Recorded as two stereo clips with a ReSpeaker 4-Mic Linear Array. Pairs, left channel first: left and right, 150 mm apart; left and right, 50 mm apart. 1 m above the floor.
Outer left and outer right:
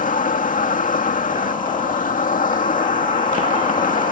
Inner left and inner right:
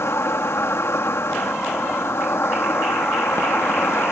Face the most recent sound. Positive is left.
turn(degrees=60)  # may be behind; listen again after turning